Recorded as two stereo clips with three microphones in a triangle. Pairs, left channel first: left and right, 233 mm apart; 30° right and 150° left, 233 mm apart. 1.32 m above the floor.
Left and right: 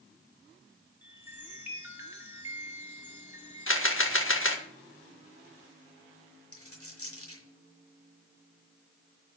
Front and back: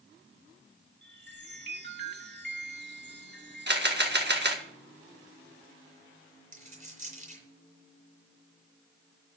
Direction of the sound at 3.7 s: 110° left.